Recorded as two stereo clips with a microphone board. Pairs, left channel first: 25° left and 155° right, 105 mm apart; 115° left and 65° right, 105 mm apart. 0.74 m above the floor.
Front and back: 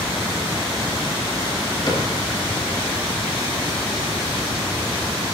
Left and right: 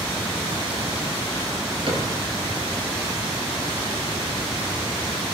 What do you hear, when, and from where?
1.9 s a cupboard door: 25° right, 4 m